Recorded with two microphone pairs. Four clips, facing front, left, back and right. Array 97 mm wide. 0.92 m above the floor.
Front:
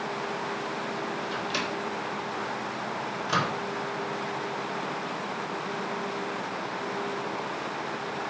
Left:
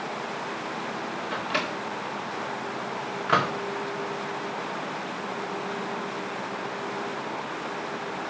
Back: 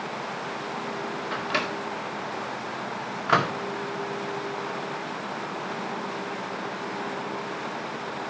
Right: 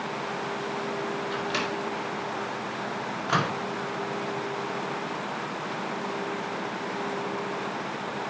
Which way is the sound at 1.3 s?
165° left.